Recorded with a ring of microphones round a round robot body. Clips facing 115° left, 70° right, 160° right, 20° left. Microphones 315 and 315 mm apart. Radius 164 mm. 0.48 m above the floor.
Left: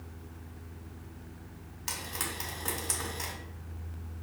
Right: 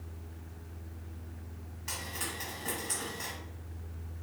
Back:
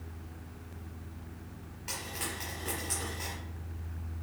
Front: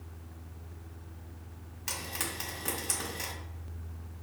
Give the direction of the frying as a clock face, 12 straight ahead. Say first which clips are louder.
Left 1 dB, front 1 dB; 10 o'clock.